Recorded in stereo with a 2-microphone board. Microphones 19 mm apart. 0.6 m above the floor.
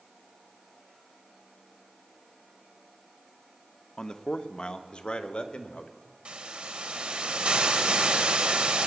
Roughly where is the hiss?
Right.